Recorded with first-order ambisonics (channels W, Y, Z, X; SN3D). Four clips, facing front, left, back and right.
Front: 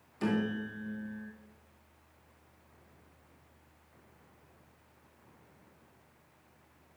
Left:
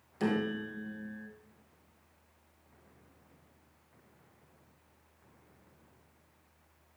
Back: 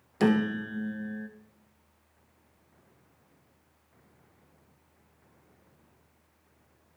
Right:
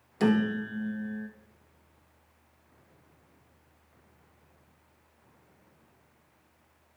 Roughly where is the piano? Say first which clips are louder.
Right 6 dB, back 7 dB; behind.